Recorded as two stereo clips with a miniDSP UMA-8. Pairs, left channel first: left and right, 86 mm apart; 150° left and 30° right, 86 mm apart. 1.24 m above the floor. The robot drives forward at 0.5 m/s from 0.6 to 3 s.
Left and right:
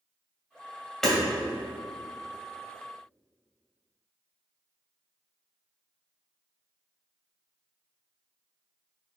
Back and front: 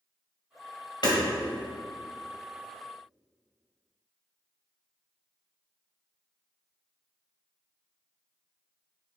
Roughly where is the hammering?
Behind.